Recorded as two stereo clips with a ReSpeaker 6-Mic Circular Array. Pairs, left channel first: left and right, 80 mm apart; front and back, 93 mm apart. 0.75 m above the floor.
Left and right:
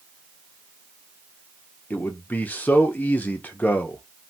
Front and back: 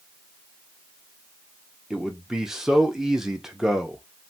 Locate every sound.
1.9 s a man speaking: 100° left, 0.5 m